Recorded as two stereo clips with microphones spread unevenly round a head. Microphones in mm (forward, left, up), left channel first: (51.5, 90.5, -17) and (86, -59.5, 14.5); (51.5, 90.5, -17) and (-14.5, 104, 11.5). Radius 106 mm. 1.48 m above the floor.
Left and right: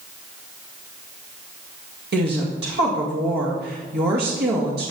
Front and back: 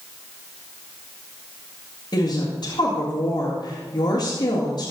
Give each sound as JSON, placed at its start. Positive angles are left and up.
{"t": 2.1, "sound": "a woman speaking", "azimuth_deg": -75, "distance_m": 1.8}